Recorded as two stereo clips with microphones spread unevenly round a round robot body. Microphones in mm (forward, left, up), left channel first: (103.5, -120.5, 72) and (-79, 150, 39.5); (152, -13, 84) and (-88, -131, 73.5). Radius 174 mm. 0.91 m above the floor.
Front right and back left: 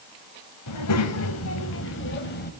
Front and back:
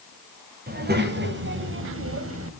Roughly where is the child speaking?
Right.